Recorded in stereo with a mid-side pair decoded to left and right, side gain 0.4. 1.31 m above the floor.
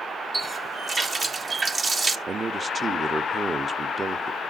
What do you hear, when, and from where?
0.3 s a running tap: 45° right, 0.8 m
2.3 s a man speaking: 40° right, 0.6 m